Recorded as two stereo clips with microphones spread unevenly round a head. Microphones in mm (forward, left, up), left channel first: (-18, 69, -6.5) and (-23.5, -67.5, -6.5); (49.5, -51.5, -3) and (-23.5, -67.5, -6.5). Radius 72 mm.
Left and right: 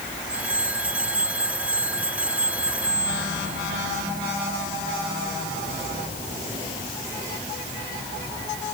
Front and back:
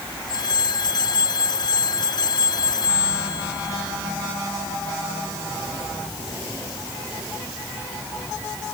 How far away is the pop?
No pop in this recording.